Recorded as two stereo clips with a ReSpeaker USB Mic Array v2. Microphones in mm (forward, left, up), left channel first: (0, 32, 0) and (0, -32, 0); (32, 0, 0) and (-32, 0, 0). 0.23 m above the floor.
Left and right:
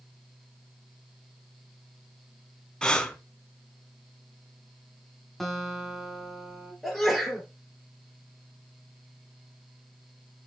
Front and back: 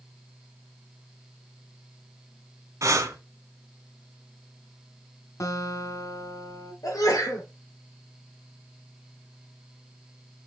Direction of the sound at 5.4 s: 5° left.